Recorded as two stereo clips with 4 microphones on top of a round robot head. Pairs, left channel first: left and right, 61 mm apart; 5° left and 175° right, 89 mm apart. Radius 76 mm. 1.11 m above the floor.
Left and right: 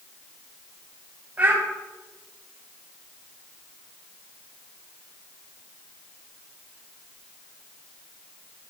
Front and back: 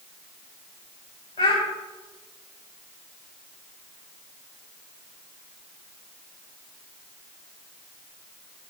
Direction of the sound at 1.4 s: 30° right.